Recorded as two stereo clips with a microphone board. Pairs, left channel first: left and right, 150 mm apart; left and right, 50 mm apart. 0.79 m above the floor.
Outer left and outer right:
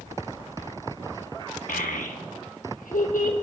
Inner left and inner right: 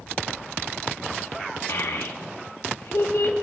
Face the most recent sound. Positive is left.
turn(degrees=65)  # may be behind; listen again after turning